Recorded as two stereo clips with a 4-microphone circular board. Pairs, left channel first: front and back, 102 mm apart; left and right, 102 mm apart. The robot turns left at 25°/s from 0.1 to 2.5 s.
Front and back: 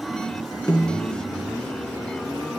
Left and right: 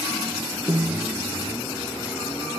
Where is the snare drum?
60° right, 2.5 m; by 1.2 s 75° right, 2.5 m.